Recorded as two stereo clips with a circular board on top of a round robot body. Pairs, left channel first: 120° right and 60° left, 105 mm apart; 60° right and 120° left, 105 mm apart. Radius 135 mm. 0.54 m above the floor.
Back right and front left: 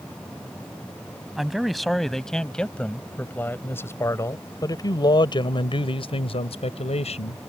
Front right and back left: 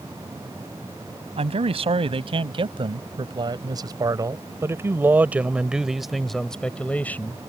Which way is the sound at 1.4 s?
145° left.